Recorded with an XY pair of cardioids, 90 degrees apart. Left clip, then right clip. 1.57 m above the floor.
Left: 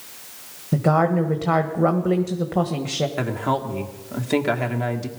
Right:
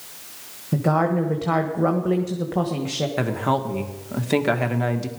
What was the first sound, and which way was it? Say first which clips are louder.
A woman speaking: left 2 dB; 20° left.